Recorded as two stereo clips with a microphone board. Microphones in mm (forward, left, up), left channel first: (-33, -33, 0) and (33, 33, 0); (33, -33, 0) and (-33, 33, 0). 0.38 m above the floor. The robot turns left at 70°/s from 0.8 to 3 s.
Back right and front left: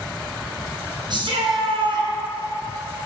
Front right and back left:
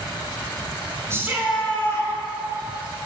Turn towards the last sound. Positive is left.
turn(degrees=-55)